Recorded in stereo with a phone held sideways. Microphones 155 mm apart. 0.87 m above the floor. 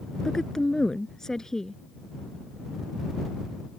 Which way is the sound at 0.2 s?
5° left (ahead or behind).